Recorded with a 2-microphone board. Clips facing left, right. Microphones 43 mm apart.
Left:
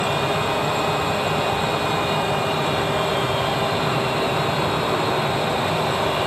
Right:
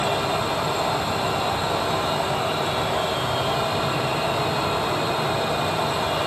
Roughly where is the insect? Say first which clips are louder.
Left 2 dB; left.